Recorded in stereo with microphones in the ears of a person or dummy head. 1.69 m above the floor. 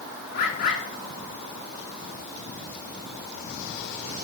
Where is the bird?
50° left (ahead or behind), 2.5 m.